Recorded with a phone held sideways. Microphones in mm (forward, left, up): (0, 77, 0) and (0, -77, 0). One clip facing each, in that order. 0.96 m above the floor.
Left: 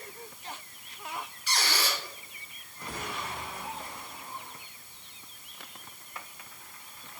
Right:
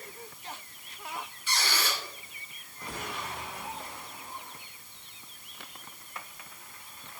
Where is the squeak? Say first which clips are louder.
Left 1 dB; 70° left (ahead or behind), 3 m.